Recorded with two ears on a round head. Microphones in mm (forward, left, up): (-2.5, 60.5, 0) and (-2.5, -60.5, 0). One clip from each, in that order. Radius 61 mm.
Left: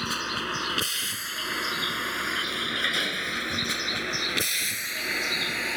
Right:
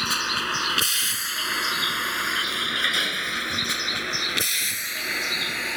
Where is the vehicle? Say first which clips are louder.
Right 5 dB; 40° right (ahead or behind); by 5.8 s 15° right (ahead or behind).